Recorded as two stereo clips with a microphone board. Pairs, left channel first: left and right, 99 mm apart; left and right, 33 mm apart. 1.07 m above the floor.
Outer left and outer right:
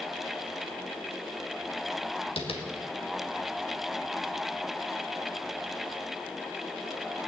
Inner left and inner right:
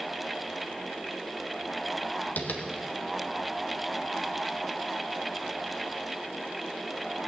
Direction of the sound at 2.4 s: 75° left (ahead or behind).